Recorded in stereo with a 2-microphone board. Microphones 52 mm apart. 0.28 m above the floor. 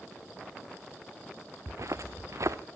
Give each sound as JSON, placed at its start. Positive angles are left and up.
{"t": 1.7, "sound": "footsteps", "side_deg": -70, "distance_m": 1.0}